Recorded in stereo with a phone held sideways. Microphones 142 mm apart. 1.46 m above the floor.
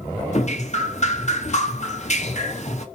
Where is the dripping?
50° left (ahead or behind), 1.9 m.